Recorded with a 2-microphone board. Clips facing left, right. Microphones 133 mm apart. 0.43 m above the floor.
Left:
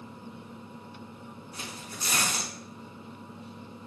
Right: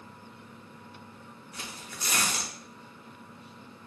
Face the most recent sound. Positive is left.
turn(degrees=25)  # may be behind; listen again after turning